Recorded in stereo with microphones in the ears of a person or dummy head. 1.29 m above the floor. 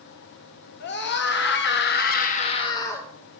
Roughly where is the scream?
Left.